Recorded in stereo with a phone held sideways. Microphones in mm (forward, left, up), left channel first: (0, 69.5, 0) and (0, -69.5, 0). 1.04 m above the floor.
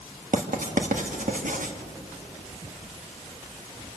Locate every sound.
0.3 s writing: 70° right (ahead or behind), 1.7 m